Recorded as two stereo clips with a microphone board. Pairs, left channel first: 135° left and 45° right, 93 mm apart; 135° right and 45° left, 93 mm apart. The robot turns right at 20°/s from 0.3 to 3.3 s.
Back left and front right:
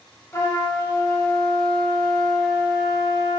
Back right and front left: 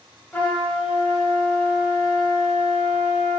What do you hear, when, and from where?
0.3 s a trumpet: 165° left, 0.8 m; by 3.4 s 135° right, 0.8 m